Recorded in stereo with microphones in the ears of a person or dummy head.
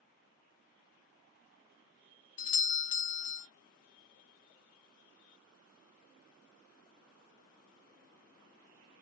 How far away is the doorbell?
About 0.6 m.